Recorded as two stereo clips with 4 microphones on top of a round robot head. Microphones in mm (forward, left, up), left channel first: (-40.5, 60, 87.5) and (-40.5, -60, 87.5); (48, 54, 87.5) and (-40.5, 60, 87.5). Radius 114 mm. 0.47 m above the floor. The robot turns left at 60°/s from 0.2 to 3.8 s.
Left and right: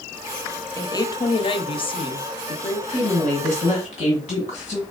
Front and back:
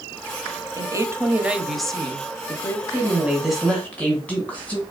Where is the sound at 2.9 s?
125° left, 2.0 m; by 4.8 s 70° left, 2.0 m.